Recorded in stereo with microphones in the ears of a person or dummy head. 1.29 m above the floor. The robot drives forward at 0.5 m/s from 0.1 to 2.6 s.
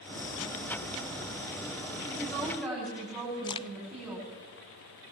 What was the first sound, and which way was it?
A woman speaking, centre (ahead or behind).